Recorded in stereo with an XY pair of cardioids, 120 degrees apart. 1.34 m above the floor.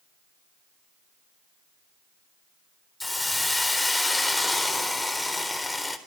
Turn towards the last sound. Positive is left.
turn(degrees=10)